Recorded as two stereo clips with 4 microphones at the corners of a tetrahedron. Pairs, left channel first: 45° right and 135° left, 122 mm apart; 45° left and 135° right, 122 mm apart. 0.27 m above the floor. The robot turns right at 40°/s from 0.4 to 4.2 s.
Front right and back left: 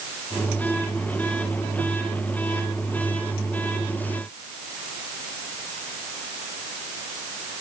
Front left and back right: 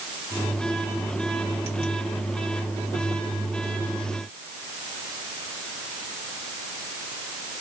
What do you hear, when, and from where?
Only background noise.